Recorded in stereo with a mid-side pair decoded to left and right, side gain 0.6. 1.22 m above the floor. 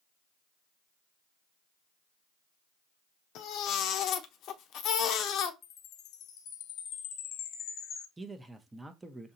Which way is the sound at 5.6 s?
60° left.